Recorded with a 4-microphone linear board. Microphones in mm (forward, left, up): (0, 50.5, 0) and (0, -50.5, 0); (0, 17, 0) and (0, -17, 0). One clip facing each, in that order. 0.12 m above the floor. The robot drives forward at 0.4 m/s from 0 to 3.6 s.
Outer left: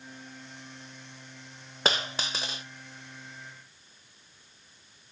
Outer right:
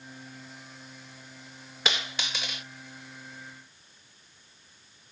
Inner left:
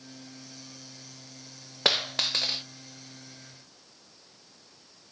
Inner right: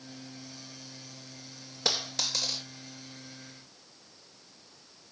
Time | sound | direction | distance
1.9 | a dropped coin | 40° left (ahead or behind) | 0.7 m